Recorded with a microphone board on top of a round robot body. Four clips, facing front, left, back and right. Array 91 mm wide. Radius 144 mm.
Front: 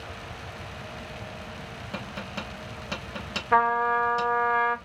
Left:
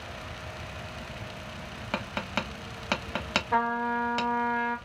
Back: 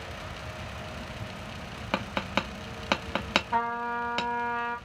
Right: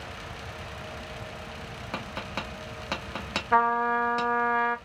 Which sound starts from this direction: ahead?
A trumpet, at 3.5 s.